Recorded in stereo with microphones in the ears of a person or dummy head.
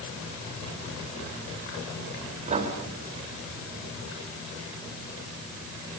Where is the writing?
35° right (ahead or behind), 2.5 m.